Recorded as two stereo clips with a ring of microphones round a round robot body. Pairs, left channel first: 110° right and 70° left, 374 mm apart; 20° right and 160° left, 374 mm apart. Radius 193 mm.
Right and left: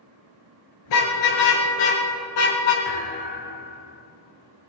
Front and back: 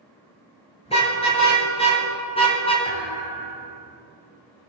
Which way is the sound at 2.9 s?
45° right.